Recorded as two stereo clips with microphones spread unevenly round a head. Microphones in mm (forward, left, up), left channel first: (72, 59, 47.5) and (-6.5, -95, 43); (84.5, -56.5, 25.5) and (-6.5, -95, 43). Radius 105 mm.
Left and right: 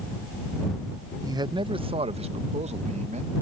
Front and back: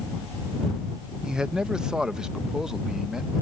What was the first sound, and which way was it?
A man speaking, 65° right.